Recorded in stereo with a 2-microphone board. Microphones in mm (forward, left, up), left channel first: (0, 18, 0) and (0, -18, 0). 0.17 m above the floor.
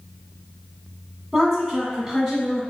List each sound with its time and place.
1.3 s a woman speaking: 5° right (ahead or behind), 1.4 m